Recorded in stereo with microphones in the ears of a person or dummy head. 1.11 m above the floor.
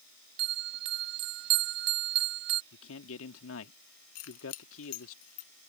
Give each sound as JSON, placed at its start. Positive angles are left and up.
{"t": 0.4, "sound": "a bell", "side_deg": -55}
{"t": 2.7, "sound": "a man speaking", "side_deg": 75}
{"t": 4.2, "sound": "keys jangling", "side_deg": 80}